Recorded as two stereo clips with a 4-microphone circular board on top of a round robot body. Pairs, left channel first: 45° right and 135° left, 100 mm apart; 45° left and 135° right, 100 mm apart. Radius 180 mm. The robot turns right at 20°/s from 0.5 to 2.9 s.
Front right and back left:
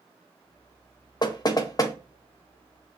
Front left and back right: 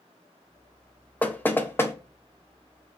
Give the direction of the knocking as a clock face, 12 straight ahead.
1 o'clock.